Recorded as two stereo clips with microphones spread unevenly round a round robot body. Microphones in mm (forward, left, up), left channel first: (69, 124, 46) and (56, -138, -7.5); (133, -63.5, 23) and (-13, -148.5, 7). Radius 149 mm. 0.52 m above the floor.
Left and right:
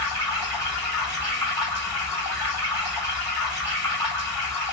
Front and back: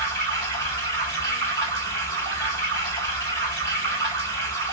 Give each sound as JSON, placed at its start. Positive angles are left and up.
{"t": 0.0, "sound": "running water", "azimuth_deg": 165, "distance_m": 3.0}